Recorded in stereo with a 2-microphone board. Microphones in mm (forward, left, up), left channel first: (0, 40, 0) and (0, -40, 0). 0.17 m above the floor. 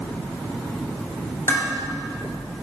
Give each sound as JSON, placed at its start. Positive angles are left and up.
{"t": 1.5, "sound": "dishes clattering", "side_deg": 35, "distance_m": 2.5}